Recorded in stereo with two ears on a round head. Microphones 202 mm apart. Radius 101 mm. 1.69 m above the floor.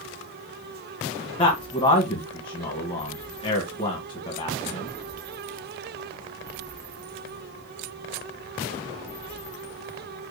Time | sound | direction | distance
1.4 | a man speaking | 20° left (ahead or behind) | 1.9 m